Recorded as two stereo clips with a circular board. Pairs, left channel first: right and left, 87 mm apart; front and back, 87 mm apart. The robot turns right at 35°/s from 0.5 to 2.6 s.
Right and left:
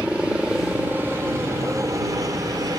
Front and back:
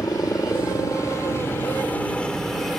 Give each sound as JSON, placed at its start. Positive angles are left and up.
{"t": 0.0, "sound": "a helicopter", "azimuth_deg": 20}